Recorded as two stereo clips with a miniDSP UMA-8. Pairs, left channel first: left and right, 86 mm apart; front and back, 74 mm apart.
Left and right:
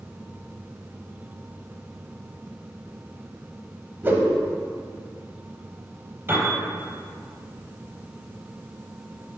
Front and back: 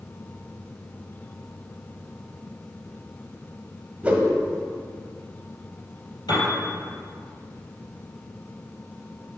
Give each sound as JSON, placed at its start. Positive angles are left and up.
{"t": 4.0, "sound": "a whoosh", "azimuth_deg": -125, "distance_m": 1.1}
{"t": 6.3, "sound": "a piano", "azimuth_deg": -25, "distance_m": 3.5}